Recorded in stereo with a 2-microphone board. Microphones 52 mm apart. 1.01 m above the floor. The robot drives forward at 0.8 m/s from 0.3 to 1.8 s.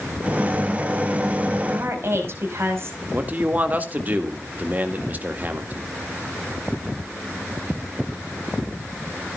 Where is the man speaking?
35° right (ahead or behind), 1.9 m.